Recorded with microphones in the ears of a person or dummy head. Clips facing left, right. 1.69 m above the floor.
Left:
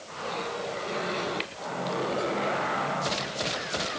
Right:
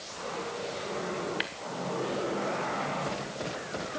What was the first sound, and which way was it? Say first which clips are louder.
Tapping: left 1 dB; 5° right (ahead or behind).